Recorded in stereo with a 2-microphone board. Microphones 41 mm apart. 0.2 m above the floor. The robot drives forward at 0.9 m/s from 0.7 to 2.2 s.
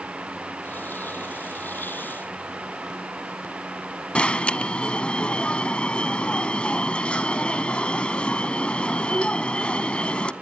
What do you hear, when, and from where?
4.2 s an alarm: 25° left (ahead or behind), 0.9 m